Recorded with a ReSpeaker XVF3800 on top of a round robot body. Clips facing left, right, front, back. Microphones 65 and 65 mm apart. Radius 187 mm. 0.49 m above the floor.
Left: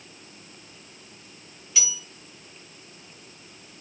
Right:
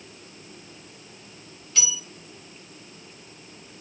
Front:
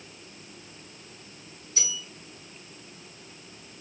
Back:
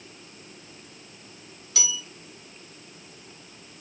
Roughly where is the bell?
Behind.